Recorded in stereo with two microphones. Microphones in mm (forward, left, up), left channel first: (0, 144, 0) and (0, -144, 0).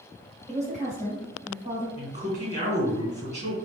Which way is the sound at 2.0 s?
25° right (ahead or behind).